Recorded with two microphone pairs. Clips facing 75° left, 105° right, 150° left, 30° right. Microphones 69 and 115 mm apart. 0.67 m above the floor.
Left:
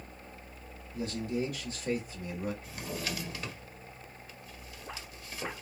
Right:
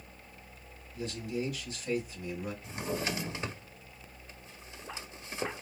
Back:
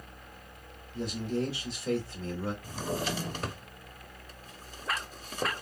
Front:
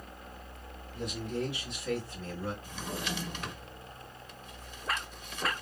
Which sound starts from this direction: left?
A man speaking, at 0.9 s.